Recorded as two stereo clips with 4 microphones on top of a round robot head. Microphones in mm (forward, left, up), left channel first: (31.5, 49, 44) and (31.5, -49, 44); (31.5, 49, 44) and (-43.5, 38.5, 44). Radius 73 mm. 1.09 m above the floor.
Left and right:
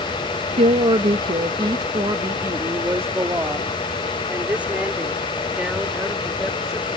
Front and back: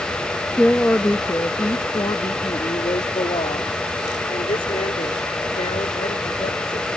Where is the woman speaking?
70° right; by 6.9 s 10° right.